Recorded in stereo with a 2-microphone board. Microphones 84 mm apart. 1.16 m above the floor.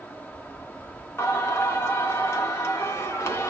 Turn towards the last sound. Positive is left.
turn(degrees=30)  # may be behind; listen again after turning